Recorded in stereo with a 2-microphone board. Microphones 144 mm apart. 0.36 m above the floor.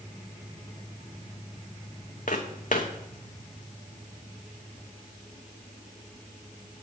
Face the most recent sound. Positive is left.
turn(degrees=60)  # may be behind; listen again after turning